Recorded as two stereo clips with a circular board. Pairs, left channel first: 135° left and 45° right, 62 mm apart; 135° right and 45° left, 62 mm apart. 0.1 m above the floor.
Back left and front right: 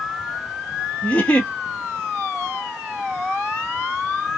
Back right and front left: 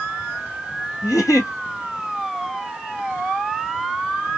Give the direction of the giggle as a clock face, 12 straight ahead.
5 o'clock.